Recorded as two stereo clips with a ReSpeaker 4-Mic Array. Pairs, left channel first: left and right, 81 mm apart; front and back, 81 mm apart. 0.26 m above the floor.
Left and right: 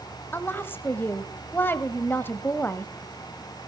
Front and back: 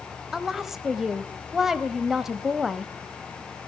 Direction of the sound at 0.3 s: 100° left.